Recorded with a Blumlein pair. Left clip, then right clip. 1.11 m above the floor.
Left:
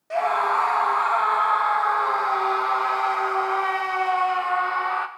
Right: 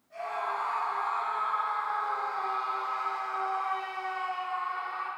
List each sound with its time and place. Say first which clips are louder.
0.1 s a scream: left 12 dB; 45° left, 0.5 m